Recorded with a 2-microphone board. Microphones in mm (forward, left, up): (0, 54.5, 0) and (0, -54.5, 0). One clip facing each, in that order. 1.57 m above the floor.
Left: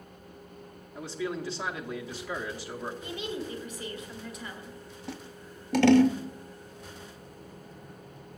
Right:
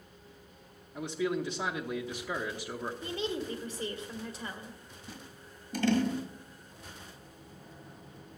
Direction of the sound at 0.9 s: 20° right (ahead or behind).